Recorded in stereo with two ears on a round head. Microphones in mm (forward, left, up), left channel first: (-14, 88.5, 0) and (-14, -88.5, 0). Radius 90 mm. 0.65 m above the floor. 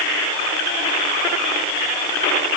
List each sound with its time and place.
Only background noise.